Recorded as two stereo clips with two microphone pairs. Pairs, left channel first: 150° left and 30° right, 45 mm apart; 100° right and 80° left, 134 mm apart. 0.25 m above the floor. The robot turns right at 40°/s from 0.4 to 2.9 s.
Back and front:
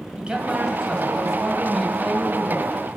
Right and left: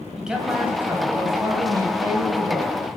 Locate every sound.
0.2 s a man speaking: straight ahead, 1.5 m; by 2.7 s 95° left, 1.5 m